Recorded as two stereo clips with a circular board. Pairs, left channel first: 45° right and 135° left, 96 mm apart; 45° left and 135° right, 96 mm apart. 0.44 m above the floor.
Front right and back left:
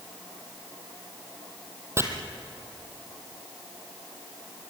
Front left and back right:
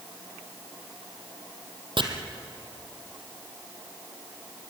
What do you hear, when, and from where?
2.0 s chopping: 165° right, 2.5 m